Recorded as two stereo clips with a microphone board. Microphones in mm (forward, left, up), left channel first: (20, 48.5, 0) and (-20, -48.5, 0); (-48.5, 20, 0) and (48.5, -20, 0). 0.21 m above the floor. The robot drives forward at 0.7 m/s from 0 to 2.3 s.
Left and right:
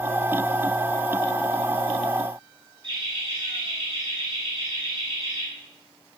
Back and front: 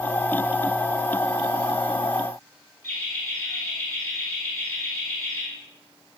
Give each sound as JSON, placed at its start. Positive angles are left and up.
{"t": 2.8, "sound": "laughter", "azimuth_deg": -150, "distance_m": 3.5}